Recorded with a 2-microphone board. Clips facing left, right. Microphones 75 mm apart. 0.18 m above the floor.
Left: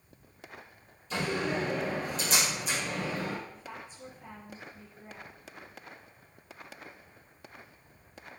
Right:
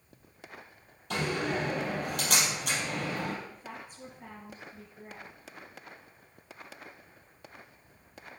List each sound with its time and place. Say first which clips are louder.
1.1 s a door slam: even; 65° right (ahead or behind), 4 m
3.5 s a woman speaking: even; 45° right (ahead or behind), 4 m